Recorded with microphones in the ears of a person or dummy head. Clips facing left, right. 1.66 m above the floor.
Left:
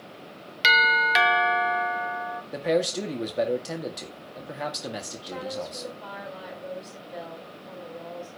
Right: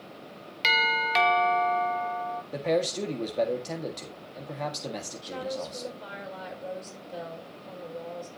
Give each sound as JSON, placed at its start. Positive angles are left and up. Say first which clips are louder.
{"t": 0.6, "sound": "a doorbell", "louder": "left 3 dB", "side_deg": 15, "distance_m": 0.9}
{"t": 2.5, "sound": "a man speaking", "louder": "left 2 dB", "side_deg": 10, "distance_m": 1.6}
{"t": 5.2, "sound": "a woman speaking", "louder": "even", "side_deg": -35, "distance_m": 6.5}